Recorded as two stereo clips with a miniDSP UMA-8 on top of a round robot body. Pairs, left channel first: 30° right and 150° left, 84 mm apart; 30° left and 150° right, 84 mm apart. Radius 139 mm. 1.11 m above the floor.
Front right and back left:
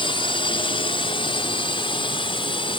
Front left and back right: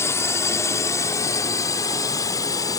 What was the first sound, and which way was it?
A drone, 25° right.